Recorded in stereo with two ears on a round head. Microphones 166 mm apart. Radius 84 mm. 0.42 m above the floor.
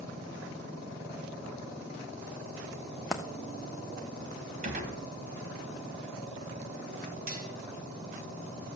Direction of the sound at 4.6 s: 45° right (ahead or behind).